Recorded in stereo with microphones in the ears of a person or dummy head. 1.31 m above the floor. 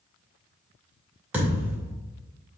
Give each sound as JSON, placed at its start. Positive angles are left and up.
{"t": 1.3, "sound": "a thud", "side_deg": -10, "distance_m": 2.5}